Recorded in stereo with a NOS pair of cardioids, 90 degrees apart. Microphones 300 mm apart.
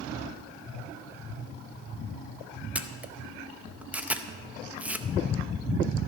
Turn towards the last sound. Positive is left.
turn(degrees=-5)